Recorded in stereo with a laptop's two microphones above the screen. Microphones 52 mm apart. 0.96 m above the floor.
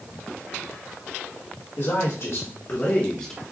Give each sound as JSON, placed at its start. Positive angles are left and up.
{"t": 1.8, "sound": "a man speaking", "side_deg": 65, "distance_m": 1.8}